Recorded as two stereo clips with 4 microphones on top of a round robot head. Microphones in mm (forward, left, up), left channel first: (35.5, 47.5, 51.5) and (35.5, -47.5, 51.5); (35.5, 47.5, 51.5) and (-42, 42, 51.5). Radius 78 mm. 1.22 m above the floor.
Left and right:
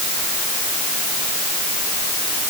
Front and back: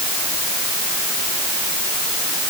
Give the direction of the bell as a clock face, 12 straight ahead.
No bell in this recording.